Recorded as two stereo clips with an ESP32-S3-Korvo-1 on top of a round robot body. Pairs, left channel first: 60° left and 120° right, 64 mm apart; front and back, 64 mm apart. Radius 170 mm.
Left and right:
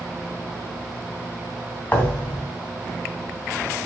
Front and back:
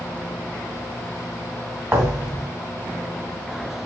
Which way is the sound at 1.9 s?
125° left.